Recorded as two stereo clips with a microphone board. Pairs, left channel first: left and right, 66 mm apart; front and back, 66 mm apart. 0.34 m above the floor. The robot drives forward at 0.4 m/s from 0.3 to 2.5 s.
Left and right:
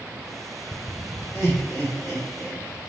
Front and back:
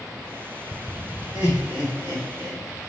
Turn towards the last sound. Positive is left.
turn(degrees=160)